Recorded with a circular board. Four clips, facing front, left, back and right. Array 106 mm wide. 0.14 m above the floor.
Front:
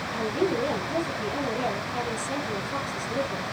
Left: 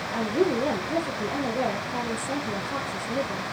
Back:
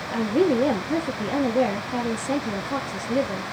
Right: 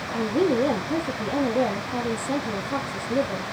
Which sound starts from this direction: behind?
A woman speaking, at 0.1 s.